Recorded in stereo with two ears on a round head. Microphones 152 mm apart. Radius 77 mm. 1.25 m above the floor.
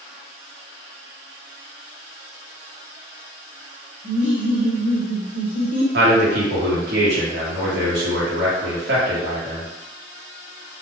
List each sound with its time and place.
4.0 s laughter: 10° right (ahead or behind), 1.0 m
5.9 s a man speaking: 65° right (ahead or behind), 1.3 m